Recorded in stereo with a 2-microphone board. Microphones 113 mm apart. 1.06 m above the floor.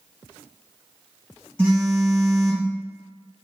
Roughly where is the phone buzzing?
Centre.